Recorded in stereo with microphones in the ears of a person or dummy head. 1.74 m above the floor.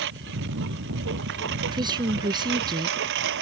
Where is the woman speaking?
20° right (ahead or behind).